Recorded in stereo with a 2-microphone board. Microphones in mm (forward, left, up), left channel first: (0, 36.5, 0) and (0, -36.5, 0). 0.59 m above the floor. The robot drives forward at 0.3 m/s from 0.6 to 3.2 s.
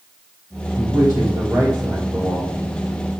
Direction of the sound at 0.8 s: 50° right (ahead or behind).